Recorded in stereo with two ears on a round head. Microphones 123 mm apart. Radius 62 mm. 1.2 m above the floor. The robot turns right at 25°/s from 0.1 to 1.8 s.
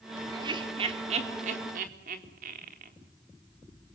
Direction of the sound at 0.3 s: 30° right (ahead or behind).